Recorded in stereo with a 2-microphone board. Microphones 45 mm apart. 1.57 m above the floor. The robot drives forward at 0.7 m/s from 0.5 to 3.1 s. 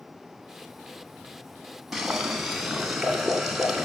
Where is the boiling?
5° right (ahead or behind), 2 m.